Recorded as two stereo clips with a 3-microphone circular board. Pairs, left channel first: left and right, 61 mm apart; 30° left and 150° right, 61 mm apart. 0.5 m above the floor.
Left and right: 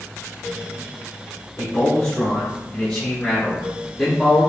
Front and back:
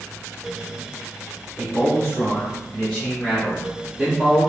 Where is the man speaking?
25° left, 1.6 m; by 4.4 s 175° right, 1.4 m.